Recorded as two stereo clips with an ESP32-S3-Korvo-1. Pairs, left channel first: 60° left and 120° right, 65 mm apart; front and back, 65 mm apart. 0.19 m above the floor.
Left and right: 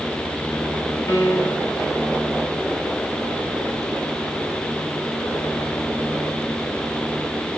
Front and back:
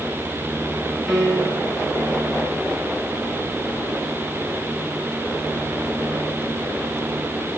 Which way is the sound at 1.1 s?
100° left.